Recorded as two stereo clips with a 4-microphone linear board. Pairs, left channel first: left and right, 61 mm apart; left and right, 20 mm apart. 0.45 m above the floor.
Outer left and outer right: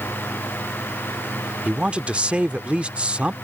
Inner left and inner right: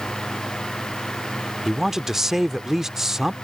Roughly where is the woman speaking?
Centre.